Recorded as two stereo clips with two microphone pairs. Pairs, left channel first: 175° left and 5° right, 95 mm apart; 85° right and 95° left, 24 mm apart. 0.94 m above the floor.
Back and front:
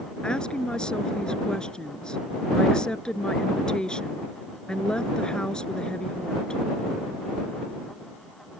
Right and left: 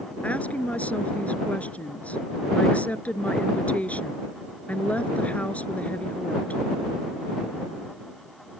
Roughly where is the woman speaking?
Right.